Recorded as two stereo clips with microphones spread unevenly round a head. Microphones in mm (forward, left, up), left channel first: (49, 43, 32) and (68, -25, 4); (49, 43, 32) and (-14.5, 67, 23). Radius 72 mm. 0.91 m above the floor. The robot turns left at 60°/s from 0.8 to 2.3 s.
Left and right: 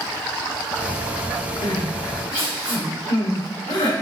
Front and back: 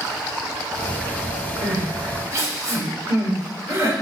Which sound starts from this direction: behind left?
Crying, at 1.6 s.